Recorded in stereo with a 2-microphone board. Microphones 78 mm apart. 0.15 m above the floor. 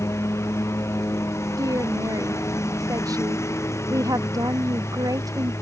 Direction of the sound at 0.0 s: 35° left (ahead or behind).